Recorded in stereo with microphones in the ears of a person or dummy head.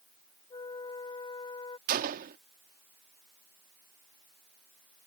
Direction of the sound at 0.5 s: 25° left (ahead or behind).